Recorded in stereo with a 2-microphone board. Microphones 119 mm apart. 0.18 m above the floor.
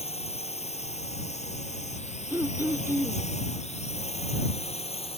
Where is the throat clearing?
20° right (ahead or behind).